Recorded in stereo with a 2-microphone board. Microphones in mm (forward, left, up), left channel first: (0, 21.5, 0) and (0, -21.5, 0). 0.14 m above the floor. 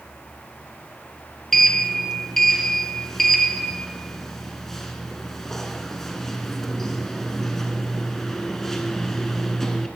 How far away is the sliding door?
About 0.7 m.